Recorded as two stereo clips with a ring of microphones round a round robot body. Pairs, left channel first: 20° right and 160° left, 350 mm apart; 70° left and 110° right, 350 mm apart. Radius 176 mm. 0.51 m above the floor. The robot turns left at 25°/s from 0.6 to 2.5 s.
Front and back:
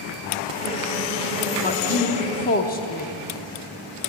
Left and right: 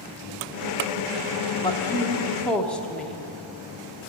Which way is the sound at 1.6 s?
5° left.